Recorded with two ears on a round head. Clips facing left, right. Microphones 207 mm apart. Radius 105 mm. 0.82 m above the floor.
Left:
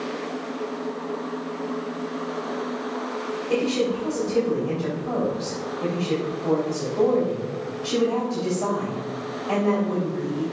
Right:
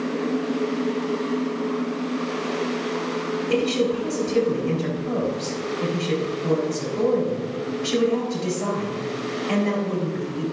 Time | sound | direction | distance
3.5 | a woman speaking | 25° right (ahead or behind) | 3 m